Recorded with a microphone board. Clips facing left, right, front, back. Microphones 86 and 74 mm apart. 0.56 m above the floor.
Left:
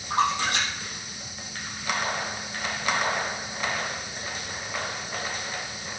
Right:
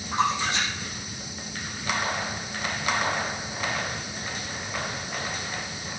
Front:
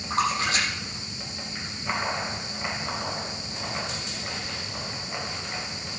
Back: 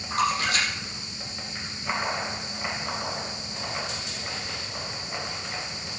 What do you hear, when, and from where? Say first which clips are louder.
0.1 s a splash: left 1 dB, even; 55° left, 7 m